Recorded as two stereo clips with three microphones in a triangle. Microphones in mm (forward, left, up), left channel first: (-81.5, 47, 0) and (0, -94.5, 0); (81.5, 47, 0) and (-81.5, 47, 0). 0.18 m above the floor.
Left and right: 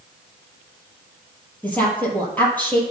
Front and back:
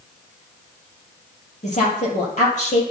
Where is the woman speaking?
40° left, 4 m.